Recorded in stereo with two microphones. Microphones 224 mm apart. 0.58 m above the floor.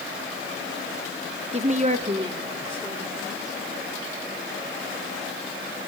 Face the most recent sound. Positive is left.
turn(degrees=-5)  # may be behind; listen again after turning